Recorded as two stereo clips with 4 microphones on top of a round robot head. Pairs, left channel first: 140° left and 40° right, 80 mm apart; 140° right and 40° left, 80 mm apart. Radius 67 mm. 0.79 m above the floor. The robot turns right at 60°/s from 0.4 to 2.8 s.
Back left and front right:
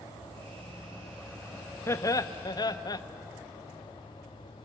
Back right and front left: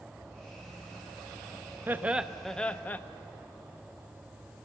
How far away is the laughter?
About 0.7 m.